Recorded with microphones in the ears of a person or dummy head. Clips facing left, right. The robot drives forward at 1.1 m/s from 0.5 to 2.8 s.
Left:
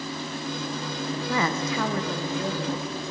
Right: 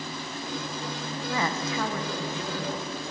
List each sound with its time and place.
1.1 s a woman speaking: 40° left (ahead or behind), 0.7 m; by 3.0 s 20° left (ahead or behind), 1.4 m